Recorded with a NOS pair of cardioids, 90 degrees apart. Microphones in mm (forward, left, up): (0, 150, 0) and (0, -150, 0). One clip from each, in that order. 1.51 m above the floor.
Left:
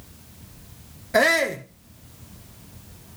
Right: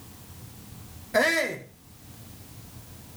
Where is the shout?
25° left, 1.3 m.